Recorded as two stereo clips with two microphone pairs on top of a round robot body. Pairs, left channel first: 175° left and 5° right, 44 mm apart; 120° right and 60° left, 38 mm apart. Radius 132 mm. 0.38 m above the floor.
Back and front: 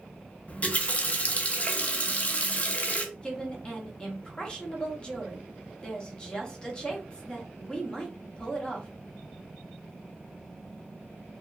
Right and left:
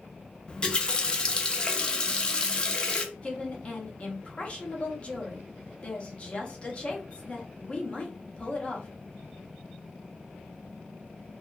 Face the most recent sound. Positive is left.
turn(degrees=-150)